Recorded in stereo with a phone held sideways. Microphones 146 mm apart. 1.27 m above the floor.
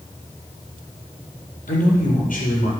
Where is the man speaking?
70° left (ahead or behind), 5.5 m.